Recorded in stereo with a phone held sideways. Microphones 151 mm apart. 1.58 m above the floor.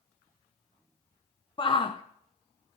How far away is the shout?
About 0.8 m.